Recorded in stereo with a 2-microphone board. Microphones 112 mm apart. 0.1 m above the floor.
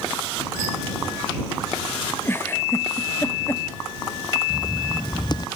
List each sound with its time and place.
2.2 s a giggle: 20° left (ahead or behind)
4.5 s writing: 40° left (ahead or behind)